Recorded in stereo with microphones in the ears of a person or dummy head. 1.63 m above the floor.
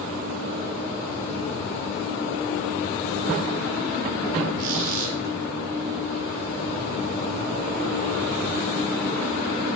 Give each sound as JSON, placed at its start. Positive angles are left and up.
{"t": 4.6, "sound": "a squeak", "side_deg": -60, "distance_m": 4.0}